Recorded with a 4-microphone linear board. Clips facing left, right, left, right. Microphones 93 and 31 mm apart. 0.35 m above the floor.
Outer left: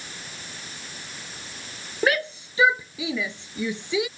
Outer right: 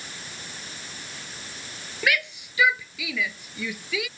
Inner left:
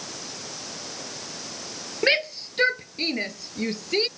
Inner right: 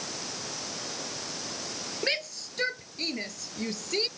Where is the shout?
35° left (ahead or behind); by 4.1 s 25° left (ahead or behind).